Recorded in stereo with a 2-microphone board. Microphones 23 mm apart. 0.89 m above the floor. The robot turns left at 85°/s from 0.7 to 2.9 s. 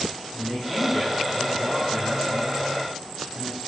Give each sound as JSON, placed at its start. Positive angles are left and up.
{"t": 0.3, "sound": "a man speaking", "azimuth_deg": 145, "distance_m": 2.5}